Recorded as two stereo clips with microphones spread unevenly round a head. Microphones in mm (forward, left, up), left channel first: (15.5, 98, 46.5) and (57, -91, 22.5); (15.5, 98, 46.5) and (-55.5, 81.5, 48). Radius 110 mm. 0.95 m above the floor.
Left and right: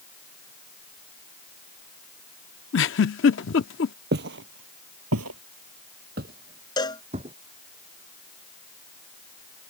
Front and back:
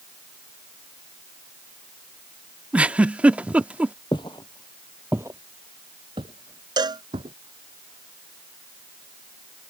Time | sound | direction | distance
2.7 | a giggle | 120° left | ?
4.1 | footsteps | 45° right | ?
6.8 | a cowbell | 175° left | ?